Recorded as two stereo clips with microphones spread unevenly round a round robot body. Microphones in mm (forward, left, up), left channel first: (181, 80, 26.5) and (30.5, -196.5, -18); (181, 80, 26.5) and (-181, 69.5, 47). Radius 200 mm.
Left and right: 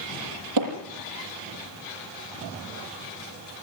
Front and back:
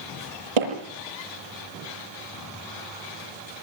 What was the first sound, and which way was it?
Hammering, 170° right.